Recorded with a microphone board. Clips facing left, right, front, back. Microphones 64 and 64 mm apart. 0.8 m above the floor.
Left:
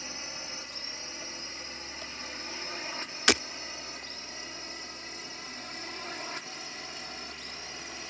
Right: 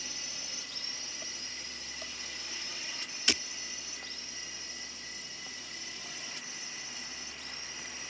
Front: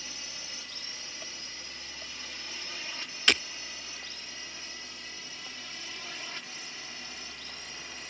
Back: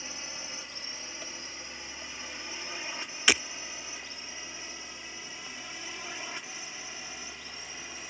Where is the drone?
125° left; by 8.1 s 105° left.